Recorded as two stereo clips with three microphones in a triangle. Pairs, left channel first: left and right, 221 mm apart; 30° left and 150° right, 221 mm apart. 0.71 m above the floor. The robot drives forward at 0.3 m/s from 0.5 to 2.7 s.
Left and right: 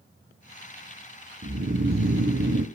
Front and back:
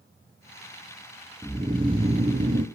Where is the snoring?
75° right, 0.8 m; by 2.6 s 105° right, 0.8 m.